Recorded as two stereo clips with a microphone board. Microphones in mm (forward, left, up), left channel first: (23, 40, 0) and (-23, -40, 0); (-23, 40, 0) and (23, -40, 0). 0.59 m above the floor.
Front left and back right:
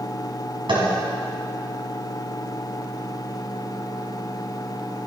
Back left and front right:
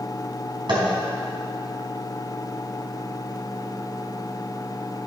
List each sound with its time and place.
0.7 s tapping: 90° right, 4 m